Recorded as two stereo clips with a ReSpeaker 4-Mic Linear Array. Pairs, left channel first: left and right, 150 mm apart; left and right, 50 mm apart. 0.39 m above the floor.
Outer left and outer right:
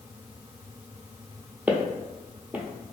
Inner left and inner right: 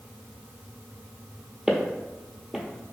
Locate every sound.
1.7 s footsteps: 10° right (ahead or behind), 0.5 m